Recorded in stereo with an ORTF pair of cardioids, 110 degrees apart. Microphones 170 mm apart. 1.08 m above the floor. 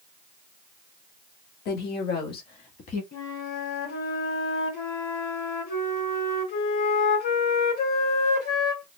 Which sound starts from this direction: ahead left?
A flute, at 3.1 s.